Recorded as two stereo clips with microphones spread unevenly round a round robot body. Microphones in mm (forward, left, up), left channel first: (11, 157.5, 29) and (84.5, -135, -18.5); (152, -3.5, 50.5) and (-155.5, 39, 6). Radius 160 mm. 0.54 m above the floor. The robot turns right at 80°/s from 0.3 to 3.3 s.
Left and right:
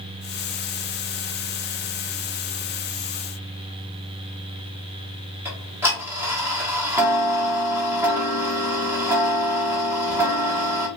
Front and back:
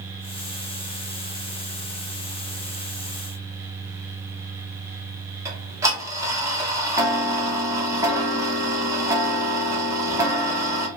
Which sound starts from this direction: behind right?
Ticking, at 5.5 s.